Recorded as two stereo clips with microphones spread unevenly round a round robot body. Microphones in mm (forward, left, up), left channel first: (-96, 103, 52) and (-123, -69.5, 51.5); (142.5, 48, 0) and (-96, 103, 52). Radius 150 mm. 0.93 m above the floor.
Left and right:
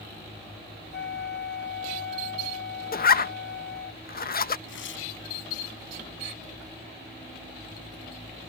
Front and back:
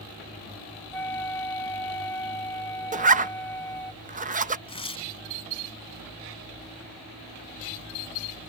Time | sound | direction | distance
0.9 | a flute | 65° left | ?
2.9 | a zipper | 105° left | ?
4.7 | tearing paper | 55° left | ?